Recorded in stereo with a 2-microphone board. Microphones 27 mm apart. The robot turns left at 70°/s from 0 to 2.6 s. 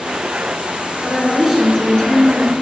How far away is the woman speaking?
About 2 m.